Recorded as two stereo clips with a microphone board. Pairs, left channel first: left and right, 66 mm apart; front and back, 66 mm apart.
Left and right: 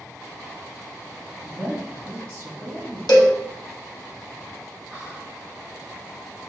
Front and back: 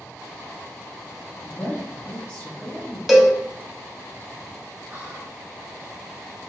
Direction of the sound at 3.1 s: 95° left.